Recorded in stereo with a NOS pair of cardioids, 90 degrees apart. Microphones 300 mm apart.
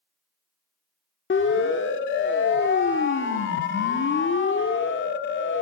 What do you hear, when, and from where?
1.3 s a siren: 40° left, 2 m